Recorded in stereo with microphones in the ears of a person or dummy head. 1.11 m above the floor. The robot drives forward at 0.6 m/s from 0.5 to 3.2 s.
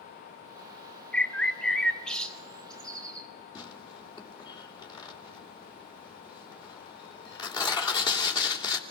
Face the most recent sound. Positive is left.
turn(degrees=25)  # may be behind; listen again after turning